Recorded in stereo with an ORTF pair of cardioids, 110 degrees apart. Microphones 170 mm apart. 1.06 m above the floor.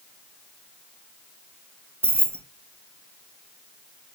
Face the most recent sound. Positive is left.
turn(degrees=-10)